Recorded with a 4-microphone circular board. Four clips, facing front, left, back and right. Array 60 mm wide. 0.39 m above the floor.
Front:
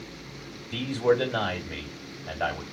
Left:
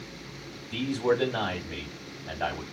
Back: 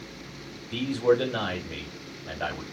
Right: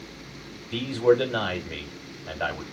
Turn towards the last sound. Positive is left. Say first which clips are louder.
# right 5 dB, back 1 dB
turn(degrees=-95)